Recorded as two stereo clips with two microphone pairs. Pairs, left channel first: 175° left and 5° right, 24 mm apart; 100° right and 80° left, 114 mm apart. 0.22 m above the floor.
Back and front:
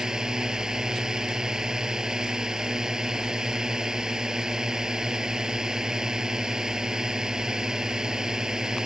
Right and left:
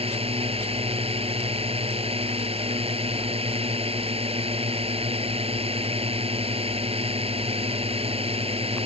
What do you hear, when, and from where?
0.0 s a drone: 55° left